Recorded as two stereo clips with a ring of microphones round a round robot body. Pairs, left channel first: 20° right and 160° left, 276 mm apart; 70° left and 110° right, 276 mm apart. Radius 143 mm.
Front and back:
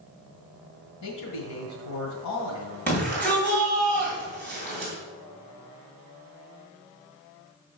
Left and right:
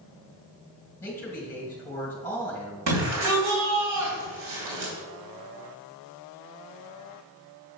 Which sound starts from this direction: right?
A shout, at 2.9 s.